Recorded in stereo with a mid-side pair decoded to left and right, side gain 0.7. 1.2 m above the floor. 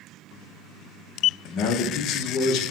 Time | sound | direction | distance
1.4 | a man speaking | 55° left | 0.6 m